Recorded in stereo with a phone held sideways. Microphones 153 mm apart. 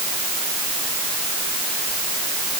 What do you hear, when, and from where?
Only background noise.